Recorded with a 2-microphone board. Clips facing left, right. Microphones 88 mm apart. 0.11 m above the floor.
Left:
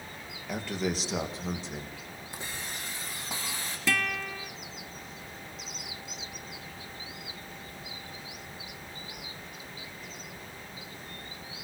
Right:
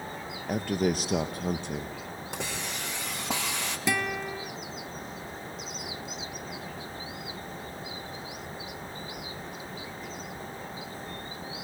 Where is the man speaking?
50° right (ahead or behind), 2 m; by 2.0 s 65° right (ahead or behind), 3 m.